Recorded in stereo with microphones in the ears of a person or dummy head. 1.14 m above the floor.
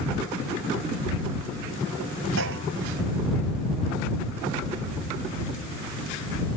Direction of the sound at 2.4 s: 80° right.